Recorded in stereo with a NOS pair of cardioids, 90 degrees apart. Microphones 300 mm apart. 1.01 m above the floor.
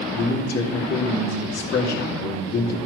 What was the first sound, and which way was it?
A man speaking, 60° left.